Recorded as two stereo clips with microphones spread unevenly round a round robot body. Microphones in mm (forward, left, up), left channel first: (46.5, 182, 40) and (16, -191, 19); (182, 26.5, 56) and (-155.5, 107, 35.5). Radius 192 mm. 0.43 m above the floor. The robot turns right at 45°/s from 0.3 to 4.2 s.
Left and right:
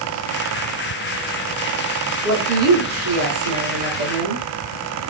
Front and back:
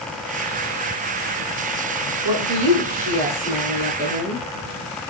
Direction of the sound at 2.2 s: Straight behind.